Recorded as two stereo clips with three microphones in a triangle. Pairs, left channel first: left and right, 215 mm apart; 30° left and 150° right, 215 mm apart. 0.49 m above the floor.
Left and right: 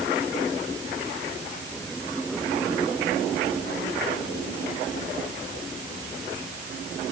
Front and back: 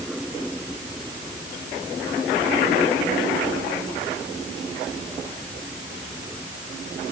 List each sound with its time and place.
Only background noise.